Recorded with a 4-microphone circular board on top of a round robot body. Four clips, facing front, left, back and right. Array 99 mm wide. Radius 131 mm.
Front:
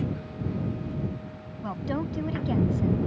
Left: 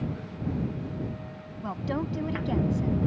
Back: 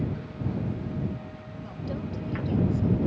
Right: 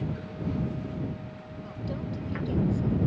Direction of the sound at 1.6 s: 50° left.